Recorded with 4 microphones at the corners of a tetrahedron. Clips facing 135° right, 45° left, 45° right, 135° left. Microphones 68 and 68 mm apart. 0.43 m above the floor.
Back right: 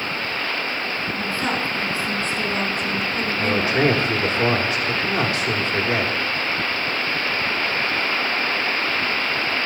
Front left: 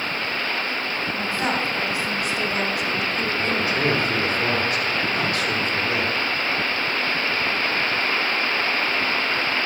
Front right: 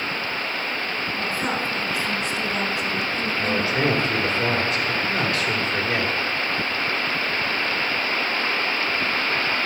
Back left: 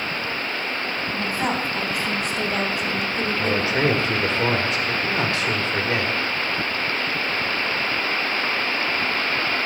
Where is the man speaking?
175° left, 1.3 m.